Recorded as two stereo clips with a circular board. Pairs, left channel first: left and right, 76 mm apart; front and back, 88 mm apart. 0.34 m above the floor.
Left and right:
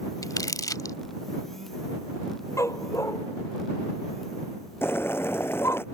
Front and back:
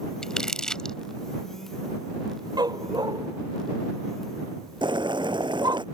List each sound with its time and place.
0.2 s crumpling: 80° left
2.6 s a dog barking: 140° left
4.8 s boiling: 150° left